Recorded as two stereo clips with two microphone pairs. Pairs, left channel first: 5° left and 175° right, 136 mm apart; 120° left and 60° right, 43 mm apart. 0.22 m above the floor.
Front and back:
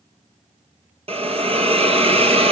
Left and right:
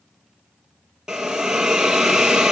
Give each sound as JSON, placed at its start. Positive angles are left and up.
{"t": 1.1, "sound": "a hiss", "azimuth_deg": -135, "distance_m": 1.5}